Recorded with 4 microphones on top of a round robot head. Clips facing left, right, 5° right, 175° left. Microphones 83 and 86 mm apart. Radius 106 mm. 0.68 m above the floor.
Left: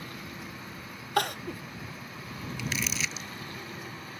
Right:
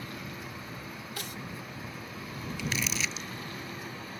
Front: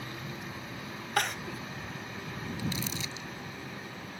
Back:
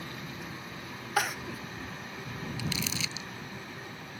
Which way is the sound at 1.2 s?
90° left.